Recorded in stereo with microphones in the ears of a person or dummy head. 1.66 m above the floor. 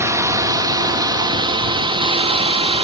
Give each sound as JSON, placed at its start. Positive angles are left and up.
{"t": 0.0, "sound": "a drone", "side_deg": -15}